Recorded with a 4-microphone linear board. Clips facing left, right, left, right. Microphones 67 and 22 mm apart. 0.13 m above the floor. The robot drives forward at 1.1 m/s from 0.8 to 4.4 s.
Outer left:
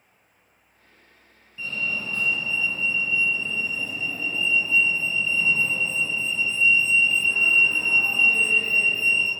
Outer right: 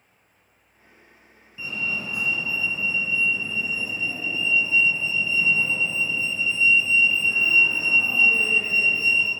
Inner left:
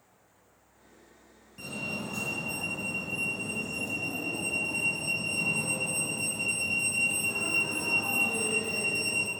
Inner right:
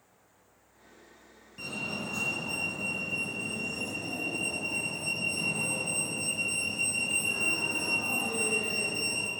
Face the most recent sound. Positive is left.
turn(degrees=-10)  # may be behind; listen again after turning